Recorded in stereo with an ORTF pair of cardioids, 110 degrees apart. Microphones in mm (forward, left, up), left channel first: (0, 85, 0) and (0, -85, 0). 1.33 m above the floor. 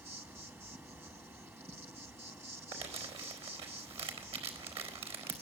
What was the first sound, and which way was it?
An insect, 15° right.